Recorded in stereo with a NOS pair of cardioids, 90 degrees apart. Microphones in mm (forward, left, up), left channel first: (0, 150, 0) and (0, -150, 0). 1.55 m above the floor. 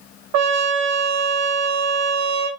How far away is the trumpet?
About 1.0 m.